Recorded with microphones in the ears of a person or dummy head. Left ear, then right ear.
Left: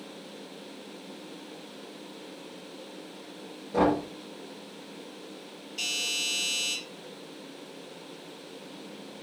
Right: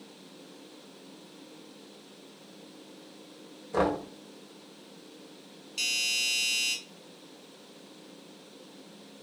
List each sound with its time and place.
3.7 s knocking: 75° right (ahead or behind), 1.3 m
5.8 s a doorbell: 60° right (ahead or behind), 1.4 m